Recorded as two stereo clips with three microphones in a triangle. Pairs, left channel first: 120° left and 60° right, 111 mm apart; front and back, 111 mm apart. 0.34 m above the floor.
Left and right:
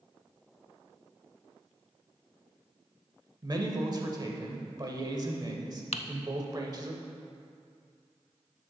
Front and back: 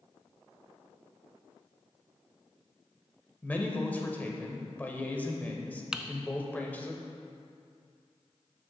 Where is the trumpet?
No trumpet in this recording.